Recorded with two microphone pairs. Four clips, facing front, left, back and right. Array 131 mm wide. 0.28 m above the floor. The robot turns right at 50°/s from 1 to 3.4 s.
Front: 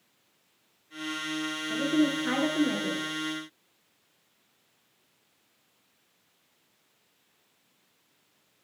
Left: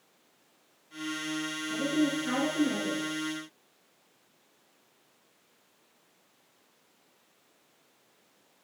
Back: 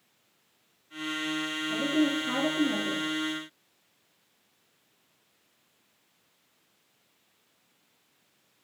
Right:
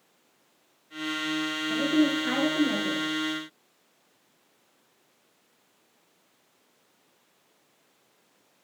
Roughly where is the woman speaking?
Ahead right.